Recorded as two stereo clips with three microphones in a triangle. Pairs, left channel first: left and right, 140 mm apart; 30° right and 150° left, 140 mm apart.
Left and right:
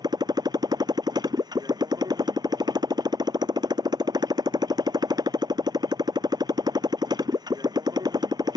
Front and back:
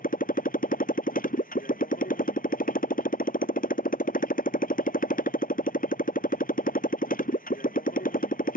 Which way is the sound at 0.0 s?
30° right.